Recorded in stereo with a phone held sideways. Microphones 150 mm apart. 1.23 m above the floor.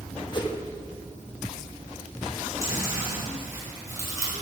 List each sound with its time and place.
0.3 s a whoosh: 30° left (ahead or behind), 1.2 m
2.6 s chewing: 20° right (ahead or behind), 4.5 m